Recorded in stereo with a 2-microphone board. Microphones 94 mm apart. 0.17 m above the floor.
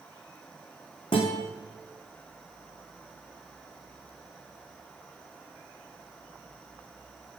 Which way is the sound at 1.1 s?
65° left (ahead or behind).